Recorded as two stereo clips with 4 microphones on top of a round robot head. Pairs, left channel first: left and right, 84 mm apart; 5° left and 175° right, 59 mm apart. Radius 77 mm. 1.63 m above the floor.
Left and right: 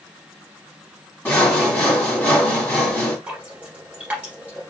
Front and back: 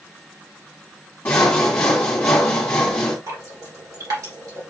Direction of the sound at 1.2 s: 50° left.